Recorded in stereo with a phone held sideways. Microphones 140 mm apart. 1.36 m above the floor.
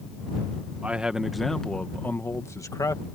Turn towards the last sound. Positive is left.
turn(degrees=30)  # may be behind; listen again after turning